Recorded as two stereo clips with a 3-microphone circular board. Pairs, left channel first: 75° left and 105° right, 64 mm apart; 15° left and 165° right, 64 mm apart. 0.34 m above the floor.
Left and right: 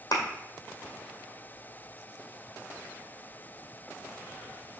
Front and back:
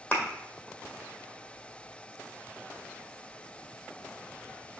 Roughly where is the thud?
Left.